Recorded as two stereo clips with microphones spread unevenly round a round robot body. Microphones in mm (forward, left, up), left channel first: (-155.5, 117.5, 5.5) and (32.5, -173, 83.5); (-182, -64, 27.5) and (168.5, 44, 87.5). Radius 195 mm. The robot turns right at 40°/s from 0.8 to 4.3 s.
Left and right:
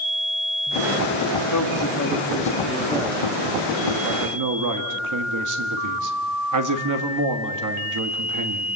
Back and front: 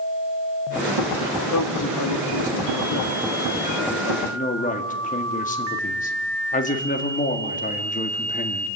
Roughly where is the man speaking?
Behind left.